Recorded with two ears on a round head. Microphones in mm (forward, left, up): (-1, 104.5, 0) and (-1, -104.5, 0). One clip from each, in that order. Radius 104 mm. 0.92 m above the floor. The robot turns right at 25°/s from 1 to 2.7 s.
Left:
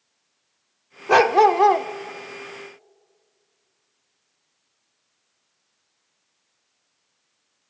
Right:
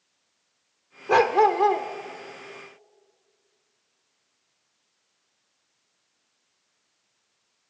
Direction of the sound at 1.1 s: 20° left (ahead or behind).